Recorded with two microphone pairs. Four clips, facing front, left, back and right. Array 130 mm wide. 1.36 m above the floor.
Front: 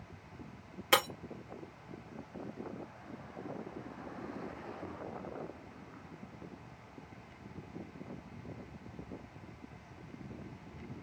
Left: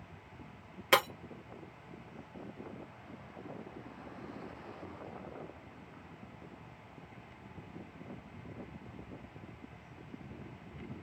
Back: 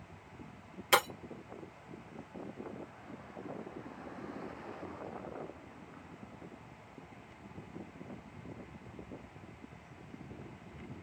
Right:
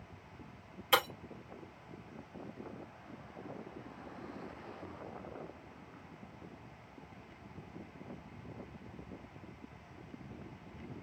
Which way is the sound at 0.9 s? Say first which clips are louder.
Left 3 dB, back 1 dB; 75° left.